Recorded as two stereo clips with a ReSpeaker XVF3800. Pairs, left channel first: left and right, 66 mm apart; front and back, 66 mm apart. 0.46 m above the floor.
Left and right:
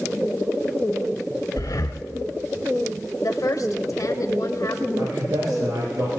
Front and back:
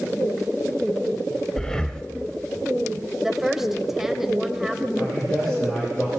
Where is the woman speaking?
100° left, 1.5 m.